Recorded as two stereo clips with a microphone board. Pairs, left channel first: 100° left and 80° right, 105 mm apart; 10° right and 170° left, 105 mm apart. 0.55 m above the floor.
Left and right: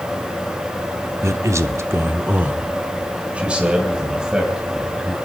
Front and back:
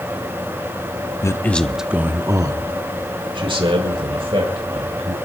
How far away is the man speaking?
About 0.7 m.